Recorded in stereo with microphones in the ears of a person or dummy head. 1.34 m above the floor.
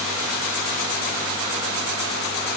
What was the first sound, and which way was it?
Only background noise.